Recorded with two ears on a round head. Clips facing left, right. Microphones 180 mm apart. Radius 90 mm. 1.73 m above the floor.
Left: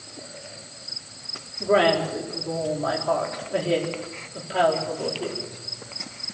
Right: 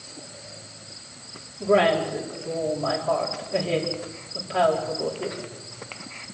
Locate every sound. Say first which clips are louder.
1.6 s a woman speaking: even; 5° left (ahead or behind), 5 m